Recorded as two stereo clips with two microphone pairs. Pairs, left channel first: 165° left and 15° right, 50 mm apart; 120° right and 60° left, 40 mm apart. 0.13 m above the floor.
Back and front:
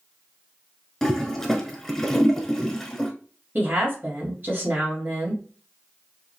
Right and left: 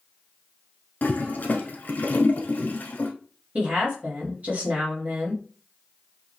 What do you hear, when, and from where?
1.0 s a toilet flushing: 115° right, 0.8 m
3.5 s a woman speaking: 20° left, 2.5 m